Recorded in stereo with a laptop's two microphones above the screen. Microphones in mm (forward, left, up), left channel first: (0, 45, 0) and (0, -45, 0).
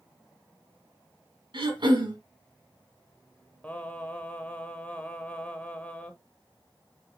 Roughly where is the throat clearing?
Right.